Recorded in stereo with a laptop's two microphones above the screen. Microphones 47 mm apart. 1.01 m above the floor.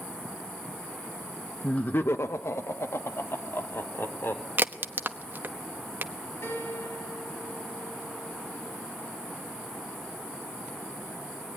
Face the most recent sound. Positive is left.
turn(degrees=70)  # may be behind; listen again after turning